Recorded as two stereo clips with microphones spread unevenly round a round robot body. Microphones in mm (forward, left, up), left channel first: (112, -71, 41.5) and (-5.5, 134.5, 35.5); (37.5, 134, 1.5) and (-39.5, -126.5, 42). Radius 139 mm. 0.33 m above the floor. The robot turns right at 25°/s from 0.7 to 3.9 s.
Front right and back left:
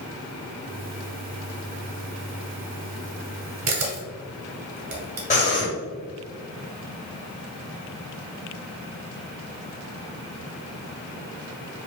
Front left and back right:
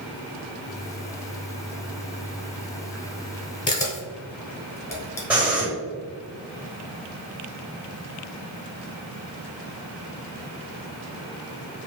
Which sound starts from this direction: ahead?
Breathing, at 5.3 s.